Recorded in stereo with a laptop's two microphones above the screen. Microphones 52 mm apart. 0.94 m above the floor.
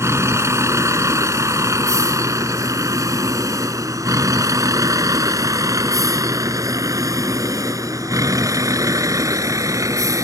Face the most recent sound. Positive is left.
turn(degrees=-75)  # may be behind; listen again after turning